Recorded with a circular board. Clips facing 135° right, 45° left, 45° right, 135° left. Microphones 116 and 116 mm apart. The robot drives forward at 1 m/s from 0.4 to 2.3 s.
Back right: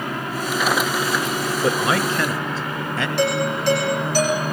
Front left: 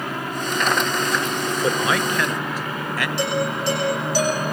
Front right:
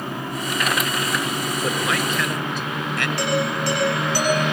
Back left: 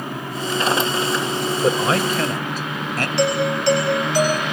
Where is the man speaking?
170° left, 2 m; by 3.1 s 175° left, 2.5 m.